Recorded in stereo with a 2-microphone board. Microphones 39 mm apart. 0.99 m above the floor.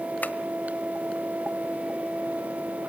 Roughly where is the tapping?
Left.